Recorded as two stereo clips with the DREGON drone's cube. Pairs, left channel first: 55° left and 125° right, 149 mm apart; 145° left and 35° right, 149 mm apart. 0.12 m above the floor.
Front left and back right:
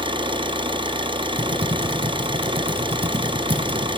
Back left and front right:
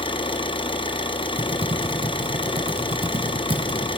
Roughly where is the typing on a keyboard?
Right.